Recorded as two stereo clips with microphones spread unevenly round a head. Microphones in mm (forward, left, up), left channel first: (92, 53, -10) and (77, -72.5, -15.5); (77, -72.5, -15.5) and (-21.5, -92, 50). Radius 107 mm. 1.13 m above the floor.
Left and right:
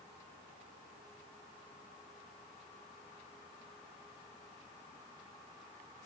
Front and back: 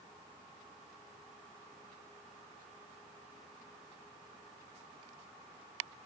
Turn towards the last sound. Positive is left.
No sound to turn to.